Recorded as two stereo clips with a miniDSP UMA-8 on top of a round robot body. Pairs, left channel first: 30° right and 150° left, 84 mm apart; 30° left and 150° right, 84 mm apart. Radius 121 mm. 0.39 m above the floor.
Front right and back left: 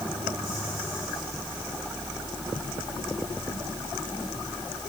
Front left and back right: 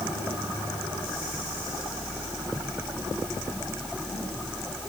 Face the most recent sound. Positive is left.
No sound to turn to.